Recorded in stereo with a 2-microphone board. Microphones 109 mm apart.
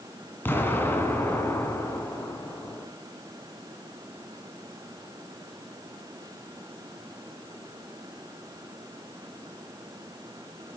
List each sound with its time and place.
0.5 s an explosion: 20° left (ahead or behind), 2.5 m